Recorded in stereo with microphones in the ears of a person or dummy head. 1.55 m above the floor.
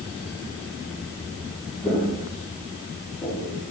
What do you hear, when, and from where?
1.8 s footsteps: 5° left (ahead or behind), 5 m; by 3.6 s 15° left (ahead or behind), 5.5 m